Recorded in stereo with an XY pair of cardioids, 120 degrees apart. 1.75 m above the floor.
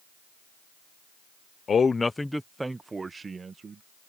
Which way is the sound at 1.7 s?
35° left.